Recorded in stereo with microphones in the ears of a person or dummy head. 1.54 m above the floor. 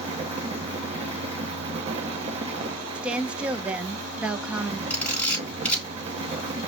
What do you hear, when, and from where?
0.0 s a fan: 35° right (ahead or behind), 0.9 m
3.0 s a woman speaking: 5° right (ahead or behind), 0.6 m
4.9 s a camera shutter: 5° left (ahead or behind), 3 m